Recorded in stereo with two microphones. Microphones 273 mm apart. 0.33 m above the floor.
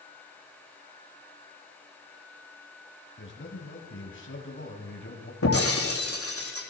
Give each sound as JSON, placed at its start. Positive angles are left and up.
{"t": 3.2, "sound": "a man speaking", "side_deg": 45, "distance_m": 1.9}
{"t": 5.4, "sound": "breaking glass", "side_deg": 55, "distance_m": 3.0}